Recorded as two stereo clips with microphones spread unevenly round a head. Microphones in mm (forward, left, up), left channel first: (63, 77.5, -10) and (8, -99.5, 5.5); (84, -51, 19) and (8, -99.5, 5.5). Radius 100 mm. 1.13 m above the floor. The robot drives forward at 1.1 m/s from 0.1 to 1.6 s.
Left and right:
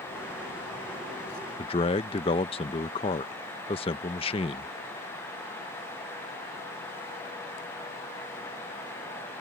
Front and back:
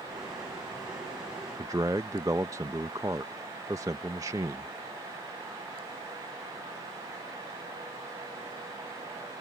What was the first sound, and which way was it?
A man speaking, 140° left.